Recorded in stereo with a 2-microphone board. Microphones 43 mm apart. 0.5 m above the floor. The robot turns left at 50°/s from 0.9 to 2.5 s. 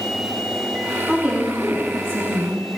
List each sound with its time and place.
1.1 s a woman speaking: 15° right, 3.5 m; by 2.6 s 85° right, 3.5 m